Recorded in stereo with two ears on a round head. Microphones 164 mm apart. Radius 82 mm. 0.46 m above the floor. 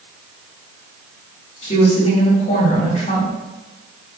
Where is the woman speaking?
35° left (ahead or behind), 1.1 m.